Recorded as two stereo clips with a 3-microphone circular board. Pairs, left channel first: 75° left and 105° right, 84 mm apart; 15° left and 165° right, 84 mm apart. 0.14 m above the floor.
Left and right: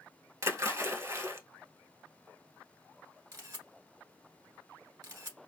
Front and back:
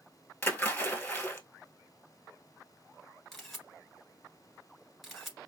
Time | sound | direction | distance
0.4 | a splash | 55° right | 1.2 m
3.3 | a camera shutter | 75° right | 1.4 m